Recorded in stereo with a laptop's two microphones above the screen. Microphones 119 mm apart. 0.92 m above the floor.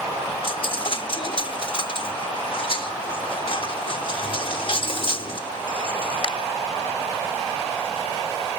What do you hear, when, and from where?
0.4 s a dropped coin: 45° left (ahead or behind), 0.8 m